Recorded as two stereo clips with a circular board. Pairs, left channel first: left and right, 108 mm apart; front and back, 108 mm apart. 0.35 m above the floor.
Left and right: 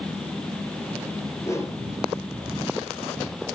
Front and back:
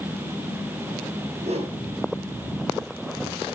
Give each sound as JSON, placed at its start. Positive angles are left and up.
{"t": 1.4, "sound": "a whoosh", "azimuth_deg": 155, "distance_m": 2.0}